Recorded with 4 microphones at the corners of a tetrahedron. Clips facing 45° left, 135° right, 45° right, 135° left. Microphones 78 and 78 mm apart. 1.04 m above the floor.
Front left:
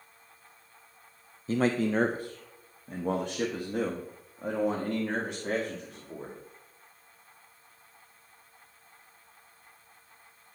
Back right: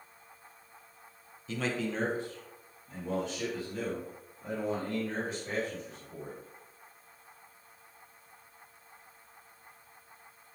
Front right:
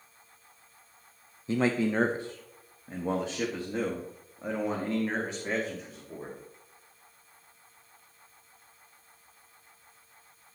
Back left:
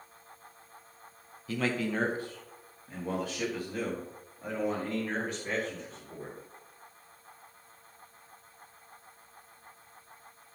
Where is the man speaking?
10° left, 0.8 m; by 6.4 s 20° left, 3 m.